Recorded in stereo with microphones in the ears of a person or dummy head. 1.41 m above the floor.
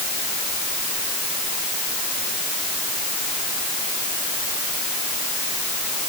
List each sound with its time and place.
Only background noise.